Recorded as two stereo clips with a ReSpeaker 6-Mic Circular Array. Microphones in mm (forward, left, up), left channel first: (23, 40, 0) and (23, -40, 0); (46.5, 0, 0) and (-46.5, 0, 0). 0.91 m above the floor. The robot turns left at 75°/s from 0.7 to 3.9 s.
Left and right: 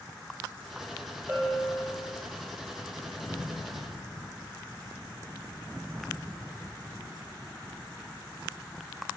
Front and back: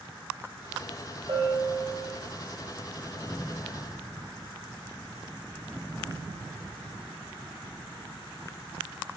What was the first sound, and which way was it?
A bell, 155° right.